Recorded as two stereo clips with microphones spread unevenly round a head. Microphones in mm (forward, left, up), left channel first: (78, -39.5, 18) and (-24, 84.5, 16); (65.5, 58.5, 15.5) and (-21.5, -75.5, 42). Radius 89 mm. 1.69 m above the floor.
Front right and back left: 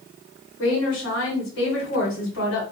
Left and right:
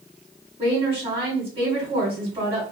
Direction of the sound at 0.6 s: 70° right.